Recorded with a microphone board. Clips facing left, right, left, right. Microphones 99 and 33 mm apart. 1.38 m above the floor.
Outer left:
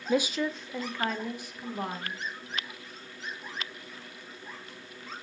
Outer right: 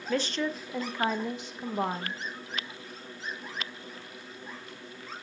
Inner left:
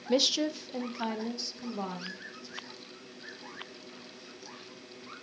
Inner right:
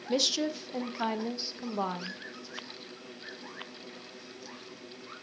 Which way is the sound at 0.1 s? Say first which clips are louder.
Outer left 2 dB, inner left 2 dB; 15° left (ahead or behind).